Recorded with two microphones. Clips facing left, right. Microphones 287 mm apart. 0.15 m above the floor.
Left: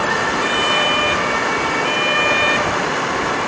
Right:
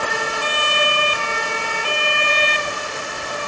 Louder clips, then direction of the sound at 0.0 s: Left 5 dB; 80° left.